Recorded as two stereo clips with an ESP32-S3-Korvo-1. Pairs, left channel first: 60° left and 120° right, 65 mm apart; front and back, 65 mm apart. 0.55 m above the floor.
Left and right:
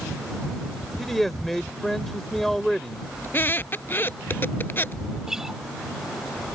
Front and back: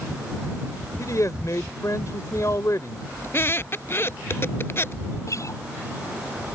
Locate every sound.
1.0 s a man speaking: 25° right
3.2 s a squeak: 25° left
5.3 s a guitar: 35° right